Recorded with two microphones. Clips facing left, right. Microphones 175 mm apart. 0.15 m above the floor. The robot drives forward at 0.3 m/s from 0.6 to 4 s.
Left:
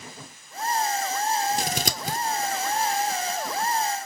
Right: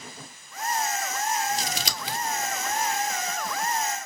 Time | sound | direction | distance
1.6 | scissors | 55° left (ahead or behind) | 0.6 m